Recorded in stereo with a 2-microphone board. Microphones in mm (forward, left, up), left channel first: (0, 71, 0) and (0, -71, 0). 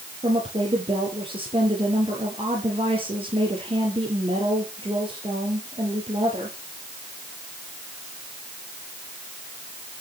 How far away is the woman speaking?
About 5.5 m.